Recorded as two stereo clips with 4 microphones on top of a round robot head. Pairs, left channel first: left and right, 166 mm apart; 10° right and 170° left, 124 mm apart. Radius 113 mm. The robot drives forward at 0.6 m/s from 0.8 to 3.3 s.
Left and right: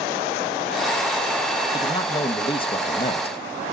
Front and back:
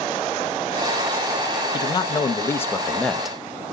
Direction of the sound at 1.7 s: 30° left.